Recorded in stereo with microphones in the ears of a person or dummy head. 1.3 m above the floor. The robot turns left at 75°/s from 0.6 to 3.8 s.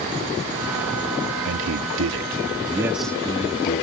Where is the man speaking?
60° right; by 3.9 s 120° left.